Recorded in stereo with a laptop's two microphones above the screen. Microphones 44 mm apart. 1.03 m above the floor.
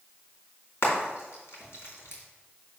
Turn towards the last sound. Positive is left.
turn(degrees=75)  # may be behind; listen again after turning